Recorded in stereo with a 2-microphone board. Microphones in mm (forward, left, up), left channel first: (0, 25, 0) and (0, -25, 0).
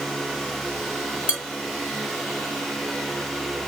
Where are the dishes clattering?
20° right (ahead or behind), 1.5 m.